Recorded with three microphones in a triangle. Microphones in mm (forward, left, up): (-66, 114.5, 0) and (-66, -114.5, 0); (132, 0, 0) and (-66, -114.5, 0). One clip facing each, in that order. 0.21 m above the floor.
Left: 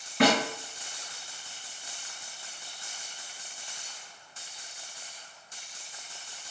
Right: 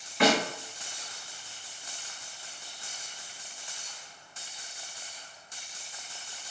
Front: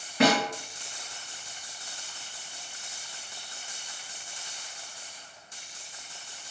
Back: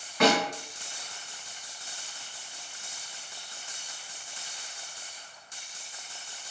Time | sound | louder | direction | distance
0.2 | a snare drum | left 1 dB, front 1 dB | 75° left | 2 m